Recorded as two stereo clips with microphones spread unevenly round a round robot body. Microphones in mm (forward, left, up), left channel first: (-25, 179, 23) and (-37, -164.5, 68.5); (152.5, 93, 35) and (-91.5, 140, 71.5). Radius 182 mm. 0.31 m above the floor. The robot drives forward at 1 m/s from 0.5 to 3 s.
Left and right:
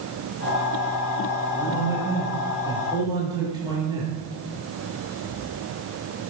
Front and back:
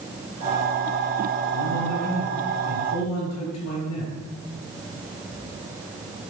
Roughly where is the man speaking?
Ahead.